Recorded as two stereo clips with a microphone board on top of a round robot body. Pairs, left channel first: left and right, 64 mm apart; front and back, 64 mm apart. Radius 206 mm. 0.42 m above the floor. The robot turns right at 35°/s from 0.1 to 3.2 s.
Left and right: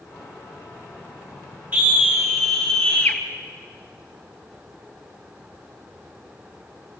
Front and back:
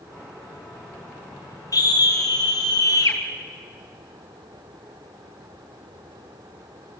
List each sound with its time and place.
1.7 s a scream: 30° right, 3.5 m; by 3.2 s 25° left, 3.5 m